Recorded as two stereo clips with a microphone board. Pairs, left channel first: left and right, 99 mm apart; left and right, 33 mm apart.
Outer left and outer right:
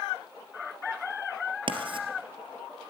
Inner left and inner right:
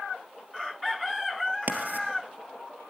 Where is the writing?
60° right (ahead or behind), 2.5 m.